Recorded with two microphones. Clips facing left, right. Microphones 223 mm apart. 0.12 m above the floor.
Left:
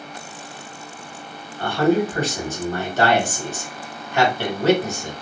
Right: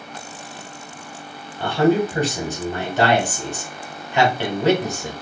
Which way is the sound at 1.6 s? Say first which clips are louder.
Right 1 dB; 15° right (ahead or behind).